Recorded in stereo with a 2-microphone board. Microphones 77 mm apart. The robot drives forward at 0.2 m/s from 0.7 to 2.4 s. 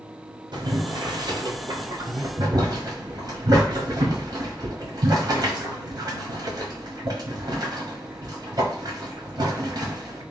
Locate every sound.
0.5 s boiling: 65° right (ahead or behind), 0.8 m; by 10.2 s 50° right (ahead or behind), 1.0 m